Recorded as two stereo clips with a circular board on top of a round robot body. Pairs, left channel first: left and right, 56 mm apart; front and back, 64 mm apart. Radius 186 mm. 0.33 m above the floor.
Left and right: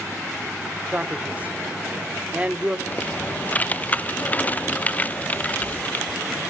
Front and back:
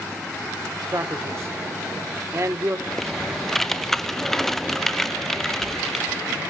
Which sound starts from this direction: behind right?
A man speaking, at 0.9 s.